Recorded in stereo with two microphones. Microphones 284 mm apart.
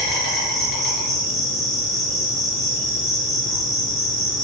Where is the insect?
Centre (ahead or behind), 1.5 m.